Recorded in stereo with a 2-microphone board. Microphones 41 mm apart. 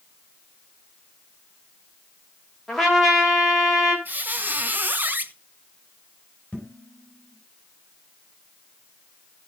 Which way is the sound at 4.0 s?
50° right (ahead or behind).